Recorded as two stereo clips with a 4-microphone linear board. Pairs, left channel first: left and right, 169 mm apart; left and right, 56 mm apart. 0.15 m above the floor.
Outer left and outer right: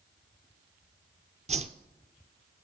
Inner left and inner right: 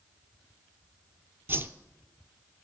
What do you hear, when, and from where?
1.5 s a whoosh: 40° right (ahead or behind), 0.5 m